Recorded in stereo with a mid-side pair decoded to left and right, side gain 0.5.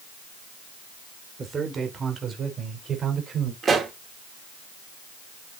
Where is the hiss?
I don't hear a hiss.